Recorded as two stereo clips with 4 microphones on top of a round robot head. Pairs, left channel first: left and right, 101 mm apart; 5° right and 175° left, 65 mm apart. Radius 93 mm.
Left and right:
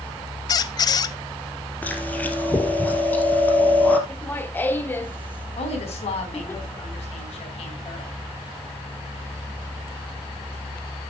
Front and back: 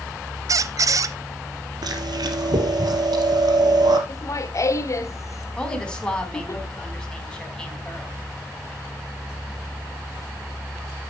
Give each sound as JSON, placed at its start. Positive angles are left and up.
{"t": 0.5, "sound": "a squeak", "azimuth_deg": 140, "distance_m": 0.6}
{"t": 1.8, "sound": "chewing", "azimuth_deg": 165, "distance_m": 1.9}
{"t": 4.1, "sound": "laughter", "azimuth_deg": 20, "distance_m": 1.7}
{"t": 5.6, "sound": "a woman speaking", "azimuth_deg": 75, "distance_m": 4.0}